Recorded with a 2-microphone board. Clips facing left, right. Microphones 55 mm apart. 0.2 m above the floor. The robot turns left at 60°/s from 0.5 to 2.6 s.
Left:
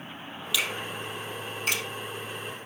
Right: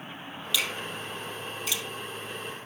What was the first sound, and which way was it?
A finger snap, 5° left (ahead or behind).